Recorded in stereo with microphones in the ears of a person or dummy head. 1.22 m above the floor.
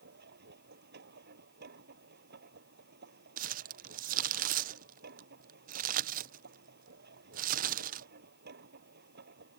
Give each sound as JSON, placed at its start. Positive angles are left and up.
{"t": 0.0, "sound": "a machine running", "side_deg": -65}
{"t": 3.4, "sound": "crumpling", "side_deg": -35}